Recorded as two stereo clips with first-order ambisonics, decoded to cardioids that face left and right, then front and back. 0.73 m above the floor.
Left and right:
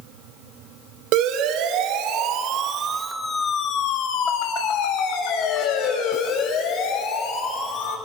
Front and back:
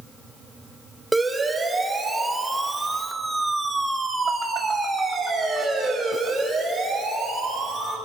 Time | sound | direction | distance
1.1 | a siren | 95° right | 3 m